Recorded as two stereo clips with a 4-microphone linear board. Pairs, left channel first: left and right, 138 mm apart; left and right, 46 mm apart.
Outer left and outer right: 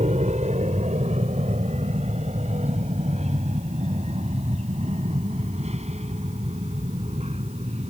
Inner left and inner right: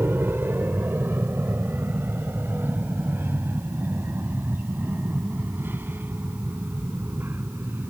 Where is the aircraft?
55° right (ahead or behind); by 7.9 s 50° right (ahead or behind).